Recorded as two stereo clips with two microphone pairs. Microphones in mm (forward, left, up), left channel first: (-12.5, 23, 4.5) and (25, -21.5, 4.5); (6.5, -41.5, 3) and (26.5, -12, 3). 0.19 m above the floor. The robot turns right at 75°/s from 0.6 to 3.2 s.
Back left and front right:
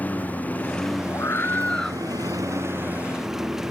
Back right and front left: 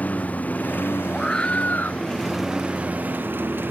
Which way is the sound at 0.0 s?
165° right.